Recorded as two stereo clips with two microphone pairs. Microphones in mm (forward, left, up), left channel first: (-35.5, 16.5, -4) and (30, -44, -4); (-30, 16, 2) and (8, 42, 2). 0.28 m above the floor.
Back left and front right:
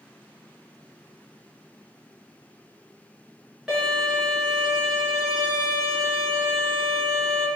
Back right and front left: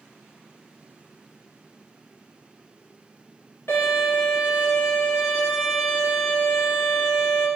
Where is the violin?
125° right, 1.6 m.